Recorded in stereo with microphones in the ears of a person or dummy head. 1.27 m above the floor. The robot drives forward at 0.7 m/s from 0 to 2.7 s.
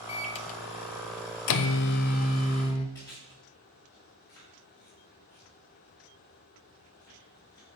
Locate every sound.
0.1 s a microwave: 30° left (ahead or behind), 1.1 m; by 2.9 s 35° left (ahead or behind), 1.1 m
3.0 s chewing: 15° left (ahead or behind), 5.5 m